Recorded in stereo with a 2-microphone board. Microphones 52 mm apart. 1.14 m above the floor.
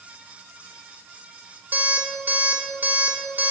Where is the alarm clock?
45° right (ahead or behind), 1.4 m.